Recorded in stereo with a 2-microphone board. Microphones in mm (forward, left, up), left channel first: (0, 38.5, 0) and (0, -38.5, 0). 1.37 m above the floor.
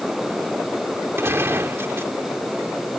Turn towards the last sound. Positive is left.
turn(degrees=-35)  # may be behind; listen again after turning